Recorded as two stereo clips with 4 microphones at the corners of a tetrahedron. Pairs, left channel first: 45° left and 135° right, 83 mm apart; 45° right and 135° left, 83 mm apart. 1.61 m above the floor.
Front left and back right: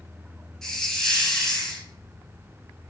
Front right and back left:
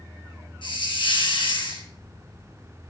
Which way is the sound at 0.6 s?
35° right.